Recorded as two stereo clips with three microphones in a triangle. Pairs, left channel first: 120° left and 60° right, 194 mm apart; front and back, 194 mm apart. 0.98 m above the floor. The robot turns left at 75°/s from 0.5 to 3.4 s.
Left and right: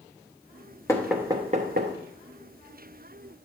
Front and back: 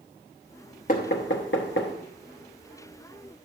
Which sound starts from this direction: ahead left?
Knocking, at 0.9 s.